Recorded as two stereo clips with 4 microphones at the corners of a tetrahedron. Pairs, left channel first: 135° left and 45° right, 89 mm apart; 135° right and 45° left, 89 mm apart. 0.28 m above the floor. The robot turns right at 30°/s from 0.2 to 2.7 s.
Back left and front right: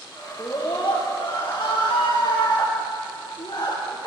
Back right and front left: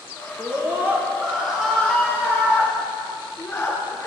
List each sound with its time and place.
0.4 s a scream: 85° left, 4.5 m; by 4.1 s 155° left, 4.5 m